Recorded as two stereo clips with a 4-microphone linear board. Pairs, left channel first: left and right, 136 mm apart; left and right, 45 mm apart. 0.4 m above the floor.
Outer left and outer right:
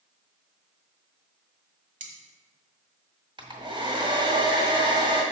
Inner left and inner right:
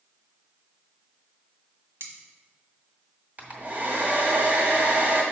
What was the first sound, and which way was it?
Cutlery clinking, 70° right (ahead or behind).